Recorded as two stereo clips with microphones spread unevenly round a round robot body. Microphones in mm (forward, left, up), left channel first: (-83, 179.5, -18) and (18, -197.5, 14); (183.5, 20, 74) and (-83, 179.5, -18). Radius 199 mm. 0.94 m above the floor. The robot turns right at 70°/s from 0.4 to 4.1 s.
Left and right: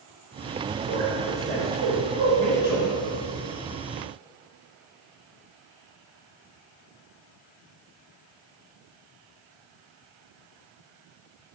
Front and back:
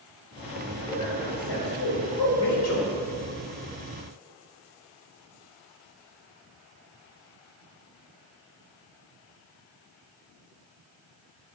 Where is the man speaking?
120° right, 3 m; by 2.9 s 25° left, 3 m.